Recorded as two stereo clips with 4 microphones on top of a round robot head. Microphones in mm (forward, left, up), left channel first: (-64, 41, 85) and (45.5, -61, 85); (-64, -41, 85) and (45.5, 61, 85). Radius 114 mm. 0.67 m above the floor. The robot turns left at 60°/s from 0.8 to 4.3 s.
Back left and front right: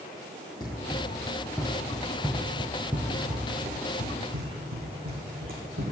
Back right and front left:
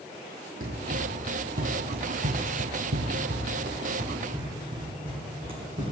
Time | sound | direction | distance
0.6 | running footsteps | 70° left | 1.2 m